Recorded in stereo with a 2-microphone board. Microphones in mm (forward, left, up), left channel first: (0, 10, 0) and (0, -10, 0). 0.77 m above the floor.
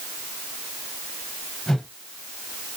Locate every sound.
1.7 s a whoosh: 40° left (ahead or behind), 0.8 m